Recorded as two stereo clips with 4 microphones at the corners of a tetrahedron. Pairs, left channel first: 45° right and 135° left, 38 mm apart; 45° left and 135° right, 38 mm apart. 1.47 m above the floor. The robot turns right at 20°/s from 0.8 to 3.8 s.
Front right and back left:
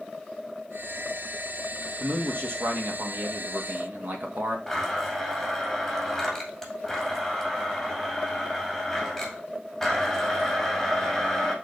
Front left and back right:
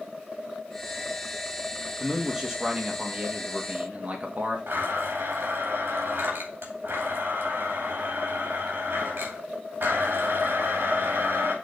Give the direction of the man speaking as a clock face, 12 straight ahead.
7 o'clock.